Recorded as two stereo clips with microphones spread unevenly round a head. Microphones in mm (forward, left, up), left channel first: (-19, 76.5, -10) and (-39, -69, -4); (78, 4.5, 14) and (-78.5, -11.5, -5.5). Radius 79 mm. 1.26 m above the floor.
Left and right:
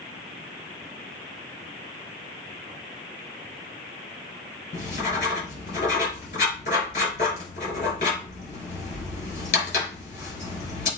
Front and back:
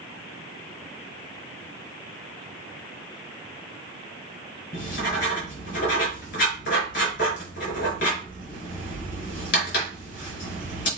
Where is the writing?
30° left, 5 m.